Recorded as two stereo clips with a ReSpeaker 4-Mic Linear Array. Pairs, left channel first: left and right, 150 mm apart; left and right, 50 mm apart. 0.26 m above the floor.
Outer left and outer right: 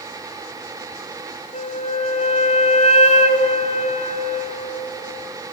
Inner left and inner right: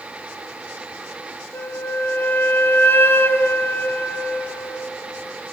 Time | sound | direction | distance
1.5 | a flute | 50° left (ahead or behind) | 0.8 m